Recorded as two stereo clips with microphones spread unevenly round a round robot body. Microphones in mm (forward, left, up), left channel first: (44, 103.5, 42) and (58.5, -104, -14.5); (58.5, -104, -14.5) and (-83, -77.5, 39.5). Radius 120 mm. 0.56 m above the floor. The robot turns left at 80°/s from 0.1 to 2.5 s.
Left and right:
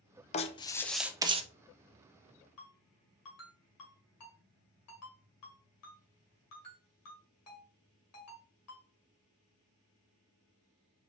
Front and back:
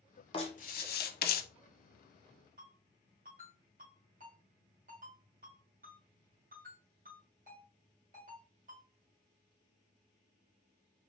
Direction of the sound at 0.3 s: 65° left.